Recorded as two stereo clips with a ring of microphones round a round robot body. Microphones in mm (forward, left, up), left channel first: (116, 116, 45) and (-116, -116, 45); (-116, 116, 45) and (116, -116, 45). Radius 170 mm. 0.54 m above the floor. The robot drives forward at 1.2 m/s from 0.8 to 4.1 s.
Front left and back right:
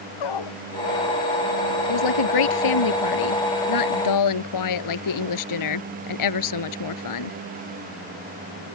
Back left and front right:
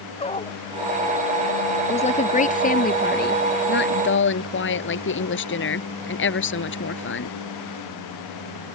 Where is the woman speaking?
65° left; by 7.4 s 80° left.